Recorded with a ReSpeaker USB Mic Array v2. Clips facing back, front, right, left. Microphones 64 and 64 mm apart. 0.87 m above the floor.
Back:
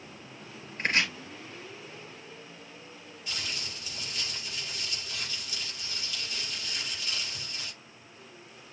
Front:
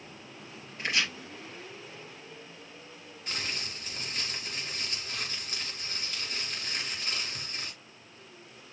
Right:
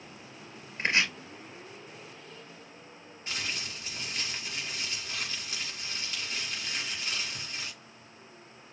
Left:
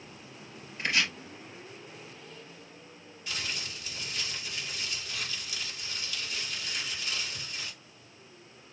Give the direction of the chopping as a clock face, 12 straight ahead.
5 o'clock.